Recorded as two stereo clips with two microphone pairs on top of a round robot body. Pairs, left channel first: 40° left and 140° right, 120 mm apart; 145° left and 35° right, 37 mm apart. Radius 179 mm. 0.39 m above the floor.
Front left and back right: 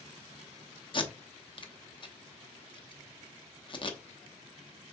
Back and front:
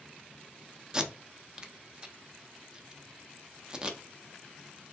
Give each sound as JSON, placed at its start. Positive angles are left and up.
{"t": 0.9, "sound": "tape being pulled", "azimuth_deg": 45, "distance_m": 1.1}